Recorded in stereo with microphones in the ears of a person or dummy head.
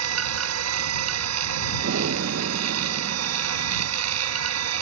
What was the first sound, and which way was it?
A machine running, 85° right.